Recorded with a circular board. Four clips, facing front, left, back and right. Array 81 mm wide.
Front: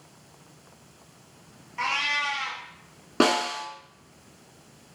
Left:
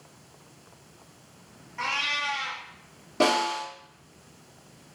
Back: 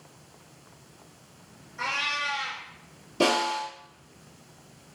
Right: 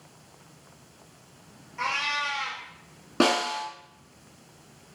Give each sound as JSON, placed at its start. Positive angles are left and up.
{"t": 1.8, "sound": "a cat meowing", "azimuth_deg": 10, "distance_m": 1.3}
{"t": 3.2, "sound": "a snare drum", "azimuth_deg": -30, "distance_m": 1.5}